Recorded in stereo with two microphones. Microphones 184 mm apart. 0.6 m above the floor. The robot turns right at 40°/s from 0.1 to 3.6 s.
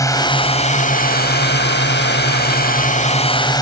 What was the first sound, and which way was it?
A drone, 20° left.